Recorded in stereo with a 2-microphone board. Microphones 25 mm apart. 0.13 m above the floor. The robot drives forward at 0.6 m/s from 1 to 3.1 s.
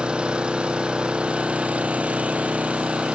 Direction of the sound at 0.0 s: 50° right (ahead or behind).